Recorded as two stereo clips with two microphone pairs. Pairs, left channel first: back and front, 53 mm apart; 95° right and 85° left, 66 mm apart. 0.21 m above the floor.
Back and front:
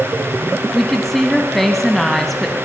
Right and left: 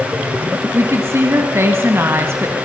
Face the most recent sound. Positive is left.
turn(degrees=95)